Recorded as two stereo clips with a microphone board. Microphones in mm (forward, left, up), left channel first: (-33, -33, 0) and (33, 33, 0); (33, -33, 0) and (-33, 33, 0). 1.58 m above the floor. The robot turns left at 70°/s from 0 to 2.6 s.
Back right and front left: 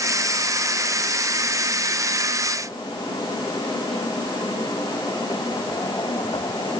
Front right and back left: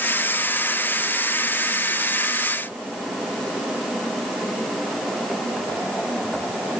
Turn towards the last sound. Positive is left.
No sound to turn to.